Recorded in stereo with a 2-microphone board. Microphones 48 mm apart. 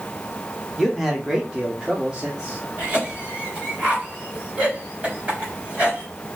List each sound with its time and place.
0.8 s a man speaking: centre (ahead or behind), 1.4 m; by 2.6 s 20° right (ahead or behind), 2.5 m
2.8 s a cough: 30° right (ahead or behind), 3 m